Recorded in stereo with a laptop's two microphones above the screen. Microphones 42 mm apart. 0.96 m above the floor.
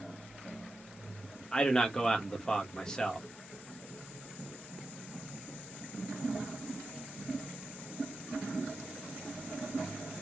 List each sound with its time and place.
1.5 s a man speaking: 15° left (ahead or behind), 1.1 m